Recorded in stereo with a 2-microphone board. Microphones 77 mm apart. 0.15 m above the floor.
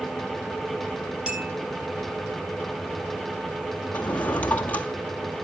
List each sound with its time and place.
1.3 s a clink: 10° right (ahead or behind), 3.5 m
3.9 s a drawer: 20° left (ahead or behind), 1.7 m